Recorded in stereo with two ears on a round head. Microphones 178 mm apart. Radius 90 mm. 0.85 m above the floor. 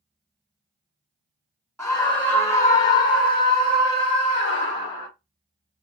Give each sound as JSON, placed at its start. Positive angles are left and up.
{"t": 1.8, "sound": "a scream", "side_deg": 5, "distance_m": 1.0}